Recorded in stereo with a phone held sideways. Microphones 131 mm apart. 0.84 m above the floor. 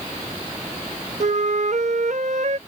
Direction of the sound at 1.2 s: 60° right (ahead or behind).